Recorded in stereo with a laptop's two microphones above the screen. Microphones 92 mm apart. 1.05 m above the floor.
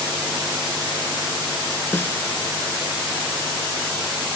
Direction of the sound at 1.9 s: 25° left (ahead or behind).